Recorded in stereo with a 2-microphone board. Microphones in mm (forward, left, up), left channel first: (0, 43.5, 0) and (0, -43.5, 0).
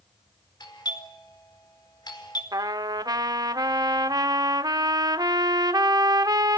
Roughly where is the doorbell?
Left.